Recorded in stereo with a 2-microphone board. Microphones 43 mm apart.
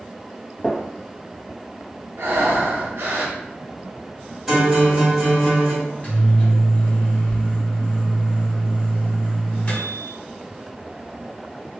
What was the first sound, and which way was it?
A gunshot, 20° left (ahead or behind).